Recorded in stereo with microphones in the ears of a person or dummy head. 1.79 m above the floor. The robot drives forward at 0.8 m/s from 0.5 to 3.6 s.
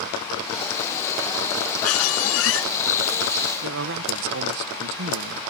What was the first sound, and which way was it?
A squeak, 75° left (ahead or behind).